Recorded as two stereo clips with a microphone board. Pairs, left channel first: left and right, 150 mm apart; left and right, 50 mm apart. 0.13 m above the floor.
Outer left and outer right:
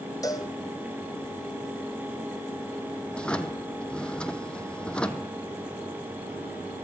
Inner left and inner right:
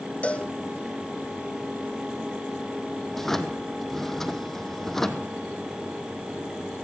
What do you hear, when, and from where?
0.2 s a cowbell: 25° left (ahead or behind), 1.6 m
3.1 s a drawer: 5° left (ahead or behind), 1.3 m